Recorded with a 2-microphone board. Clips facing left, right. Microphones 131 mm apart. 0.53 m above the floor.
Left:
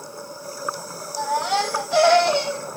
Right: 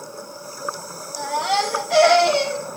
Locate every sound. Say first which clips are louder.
1.2 s a baby crying: right 1 dB; 90° right, 6 m